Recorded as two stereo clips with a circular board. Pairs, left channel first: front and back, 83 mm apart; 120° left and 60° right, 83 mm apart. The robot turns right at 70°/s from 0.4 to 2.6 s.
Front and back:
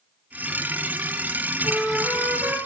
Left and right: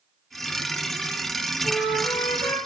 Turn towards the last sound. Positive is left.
turn(degrees=130)